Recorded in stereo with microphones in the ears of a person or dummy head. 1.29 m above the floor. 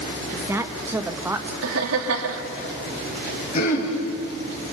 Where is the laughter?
85° right, 2 m.